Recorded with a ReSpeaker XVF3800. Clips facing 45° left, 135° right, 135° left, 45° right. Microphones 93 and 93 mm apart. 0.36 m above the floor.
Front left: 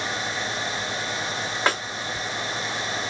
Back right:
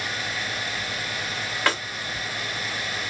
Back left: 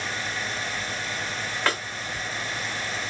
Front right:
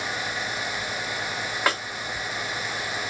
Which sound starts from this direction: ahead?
A snare drum, at 1.7 s.